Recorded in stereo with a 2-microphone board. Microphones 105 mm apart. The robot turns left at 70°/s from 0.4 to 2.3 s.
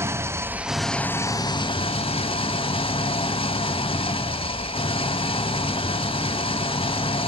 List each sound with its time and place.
0.0 s an engine running: 155° right, 1.0 m; by 7.3 s 75° left, 1.0 m